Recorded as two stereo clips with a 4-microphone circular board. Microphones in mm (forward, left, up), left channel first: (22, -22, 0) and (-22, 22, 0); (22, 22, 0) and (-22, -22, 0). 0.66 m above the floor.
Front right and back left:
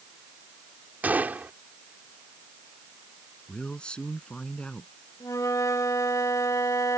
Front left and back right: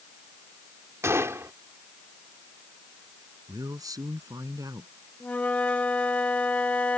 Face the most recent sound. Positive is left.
turn(degrees=-20)